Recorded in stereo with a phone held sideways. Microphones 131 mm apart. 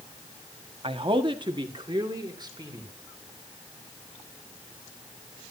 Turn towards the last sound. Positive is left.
turn(degrees=-30)  # may be behind; listen again after turning